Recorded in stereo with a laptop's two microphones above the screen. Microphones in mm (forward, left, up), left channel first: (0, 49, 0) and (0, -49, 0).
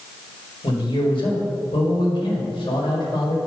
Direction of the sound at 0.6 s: 60° left (ahead or behind).